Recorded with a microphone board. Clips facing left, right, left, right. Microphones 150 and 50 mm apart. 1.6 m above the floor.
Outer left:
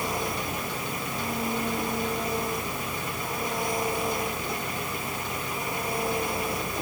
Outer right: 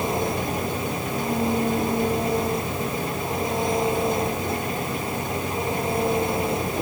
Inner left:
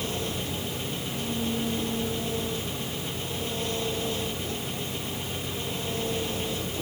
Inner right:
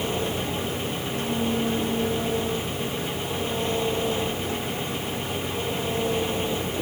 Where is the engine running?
25° right (ahead or behind).